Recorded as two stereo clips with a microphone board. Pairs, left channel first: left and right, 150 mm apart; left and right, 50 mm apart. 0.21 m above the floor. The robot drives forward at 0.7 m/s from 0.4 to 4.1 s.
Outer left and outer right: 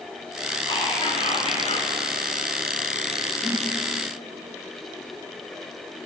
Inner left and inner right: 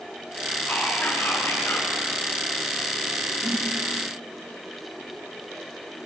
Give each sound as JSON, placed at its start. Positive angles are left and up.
{"t": 0.7, "sound": "whispering", "side_deg": 35, "distance_m": 2.0}
{"t": 3.4, "sound": "a whoosh", "side_deg": -35, "distance_m": 0.9}